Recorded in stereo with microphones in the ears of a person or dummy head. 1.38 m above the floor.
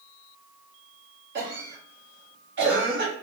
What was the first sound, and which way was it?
A cough, 60° right (ahead or behind).